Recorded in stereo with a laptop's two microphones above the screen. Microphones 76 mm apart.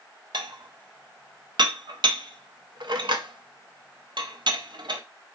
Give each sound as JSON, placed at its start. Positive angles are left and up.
{"t": 0.3, "sound": "dishes clattering", "side_deg": -80, "distance_m": 0.6}